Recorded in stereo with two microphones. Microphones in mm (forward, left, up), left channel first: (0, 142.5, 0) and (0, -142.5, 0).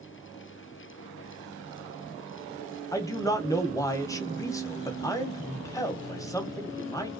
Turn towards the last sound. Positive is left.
turn(degrees=10)  # may be behind; listen again after turning